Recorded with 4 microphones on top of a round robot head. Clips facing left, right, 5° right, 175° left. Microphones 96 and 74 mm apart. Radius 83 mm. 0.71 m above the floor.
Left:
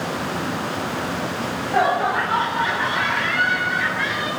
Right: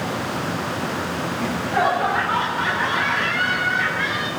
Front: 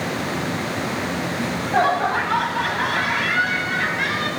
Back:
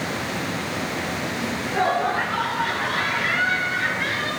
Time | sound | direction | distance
1.4 | laughter | 20° left | 6 m